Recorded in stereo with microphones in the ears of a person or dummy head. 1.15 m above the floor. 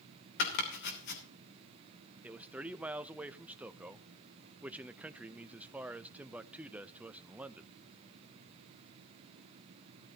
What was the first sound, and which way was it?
Chopping, 65° left (ahead or behind).